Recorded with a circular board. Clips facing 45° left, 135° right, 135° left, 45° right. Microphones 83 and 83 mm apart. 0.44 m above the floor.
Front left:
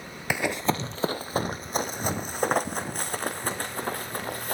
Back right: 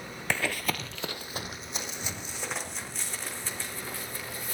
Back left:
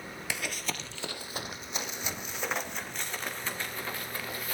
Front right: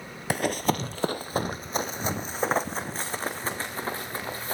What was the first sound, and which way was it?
Running footsteps, 30° right.